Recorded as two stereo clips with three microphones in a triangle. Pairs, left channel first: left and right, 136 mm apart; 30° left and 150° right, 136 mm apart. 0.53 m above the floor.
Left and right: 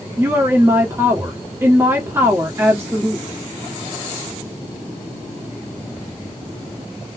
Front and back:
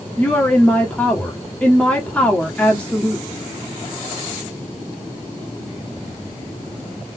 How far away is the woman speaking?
About 1.3 m.